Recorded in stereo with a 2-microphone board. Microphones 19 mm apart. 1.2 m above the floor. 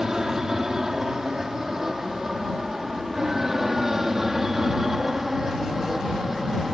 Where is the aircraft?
30° right (ahead or behind); by 6.7 s 15° right (ahead or behind).